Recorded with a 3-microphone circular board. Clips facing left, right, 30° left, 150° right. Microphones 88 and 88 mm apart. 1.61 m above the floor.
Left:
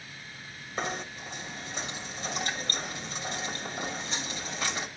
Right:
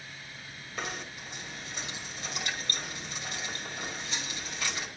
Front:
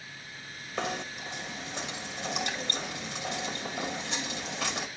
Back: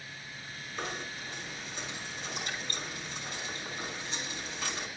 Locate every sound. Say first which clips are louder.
0.8 s knocking: left 4 dB, front 5 dB; 30° left, 2 m